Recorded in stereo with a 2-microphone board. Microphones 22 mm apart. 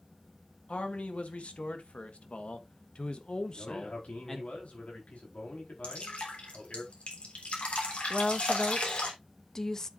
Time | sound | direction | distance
0.7 | a man speaking | 75° left (ahead or behind) | 1.9 m
3.5 | a man speaking | 85° left | 4.5 m
5.8 | dripping | 70° left (ahead or behind) | 3.5 m
8.1 | a woman speaking | 25° left (ahead or behind) | 0.8 m